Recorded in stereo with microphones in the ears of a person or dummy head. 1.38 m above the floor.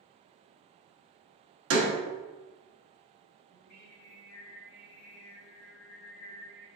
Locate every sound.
1.7 s a door slam: 85° right, 1.1 m
3.5 s singing: 65° left (ahead or behind), 2.0 m